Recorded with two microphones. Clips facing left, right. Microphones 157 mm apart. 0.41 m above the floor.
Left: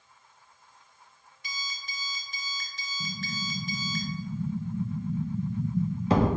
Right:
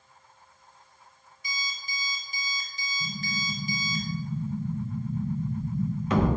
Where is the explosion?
35° left (ahead or behind), 0.6 m.